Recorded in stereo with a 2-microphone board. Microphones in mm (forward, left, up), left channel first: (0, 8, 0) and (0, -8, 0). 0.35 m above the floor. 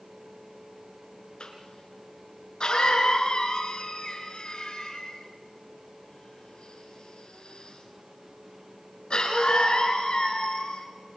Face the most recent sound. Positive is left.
turn(degrees=60)  # may be behind; listen again after turning